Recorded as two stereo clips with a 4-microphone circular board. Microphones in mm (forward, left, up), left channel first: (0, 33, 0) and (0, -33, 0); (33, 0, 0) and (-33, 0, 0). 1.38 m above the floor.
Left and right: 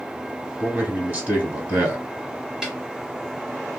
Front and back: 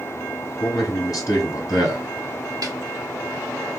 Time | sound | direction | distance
0.6 | a man speaking | 30° right | 1.0 m
2.6 | a snare drum | 170° right | 1.0 m